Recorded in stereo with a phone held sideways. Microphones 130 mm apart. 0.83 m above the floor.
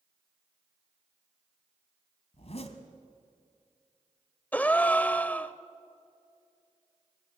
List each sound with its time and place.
2.3 s a zipper: 55° left (ahead or behind), 1.6 m
4.5 s a gasp: 10° left (ahead or behind), 0.6 m